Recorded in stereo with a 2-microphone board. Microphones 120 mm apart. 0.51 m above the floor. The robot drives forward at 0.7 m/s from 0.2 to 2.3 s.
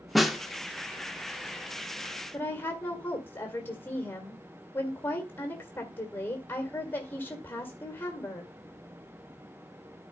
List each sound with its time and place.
0.1 s a snare drum: centre (ahead or behind), 1.1 m
2.3 s a woman speaking: 20° left (ahead or behind), 1.9 m